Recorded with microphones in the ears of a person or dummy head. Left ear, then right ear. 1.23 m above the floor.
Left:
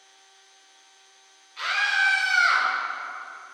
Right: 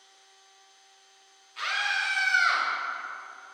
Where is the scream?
30° right (ahead or behind), 2 m; by 2.7 s 10° right (ahead or behind), 1.9 m.